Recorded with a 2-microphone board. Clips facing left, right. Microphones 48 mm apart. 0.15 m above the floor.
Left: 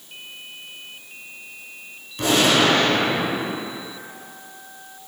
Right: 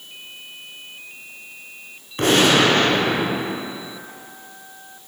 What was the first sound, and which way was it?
A gunshot, 50° right (ahead or behind).